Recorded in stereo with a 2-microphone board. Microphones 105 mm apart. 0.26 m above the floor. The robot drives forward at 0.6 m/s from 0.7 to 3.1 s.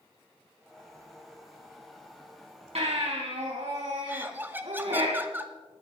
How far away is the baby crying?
About 4.5 m.